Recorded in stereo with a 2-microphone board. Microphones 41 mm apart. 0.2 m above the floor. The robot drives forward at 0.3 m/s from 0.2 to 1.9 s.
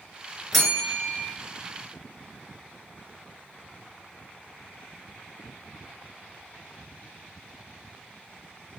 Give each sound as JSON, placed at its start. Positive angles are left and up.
{"t": 0.5, "sound": "a bell", "side_deg": 5, "distance_m": 0.8}